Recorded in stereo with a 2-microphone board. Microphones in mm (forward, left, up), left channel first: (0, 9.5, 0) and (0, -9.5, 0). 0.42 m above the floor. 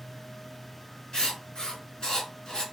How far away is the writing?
About 2.5 m.